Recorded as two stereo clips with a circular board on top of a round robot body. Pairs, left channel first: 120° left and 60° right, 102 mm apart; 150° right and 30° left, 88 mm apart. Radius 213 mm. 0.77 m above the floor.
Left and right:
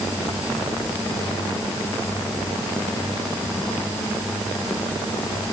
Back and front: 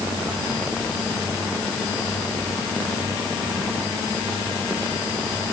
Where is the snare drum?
No snare drum in this recording.